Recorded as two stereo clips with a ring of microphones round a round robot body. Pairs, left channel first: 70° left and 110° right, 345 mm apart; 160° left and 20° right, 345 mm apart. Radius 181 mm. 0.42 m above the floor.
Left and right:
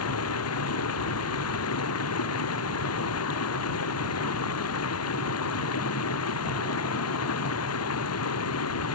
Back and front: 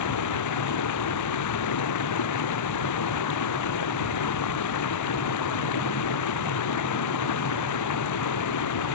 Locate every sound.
0.0 s running water: 115° left